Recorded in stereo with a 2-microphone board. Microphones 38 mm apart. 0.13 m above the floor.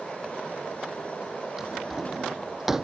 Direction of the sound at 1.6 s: 10° right (ahead or behind).